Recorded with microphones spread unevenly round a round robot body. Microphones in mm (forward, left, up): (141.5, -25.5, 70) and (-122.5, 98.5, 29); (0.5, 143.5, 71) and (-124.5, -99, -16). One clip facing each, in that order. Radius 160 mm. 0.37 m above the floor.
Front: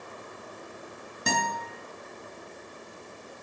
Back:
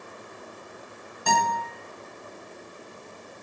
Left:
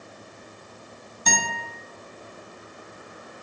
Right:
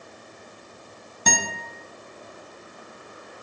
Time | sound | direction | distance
1.3 | a guitar | 95° right | 0.6 m